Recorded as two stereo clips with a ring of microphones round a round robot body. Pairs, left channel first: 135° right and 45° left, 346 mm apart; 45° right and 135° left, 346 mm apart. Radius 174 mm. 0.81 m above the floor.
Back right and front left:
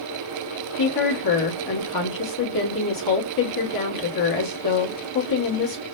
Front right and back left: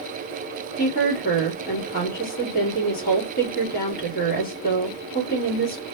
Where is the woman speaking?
110° right, 1.3 m.